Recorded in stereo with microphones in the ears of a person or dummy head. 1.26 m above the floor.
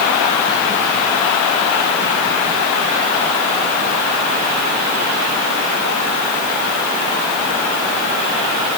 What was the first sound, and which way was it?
Only background noise.